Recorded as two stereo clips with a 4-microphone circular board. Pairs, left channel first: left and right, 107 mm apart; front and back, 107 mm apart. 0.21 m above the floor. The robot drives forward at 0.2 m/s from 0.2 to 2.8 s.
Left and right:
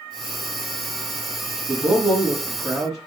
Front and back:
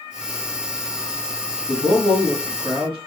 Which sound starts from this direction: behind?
A man speaking, at 1.7 s.